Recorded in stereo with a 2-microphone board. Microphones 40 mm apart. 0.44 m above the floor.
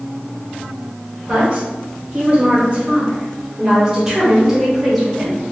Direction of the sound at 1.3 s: 35° right (ahead or behind).